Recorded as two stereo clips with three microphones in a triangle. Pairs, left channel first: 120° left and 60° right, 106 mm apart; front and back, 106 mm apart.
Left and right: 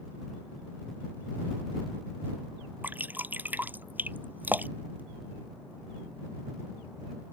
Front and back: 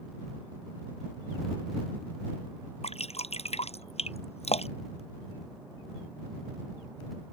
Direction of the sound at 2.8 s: 15° left.